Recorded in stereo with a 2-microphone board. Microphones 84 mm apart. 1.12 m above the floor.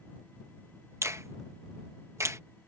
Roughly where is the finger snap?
Right.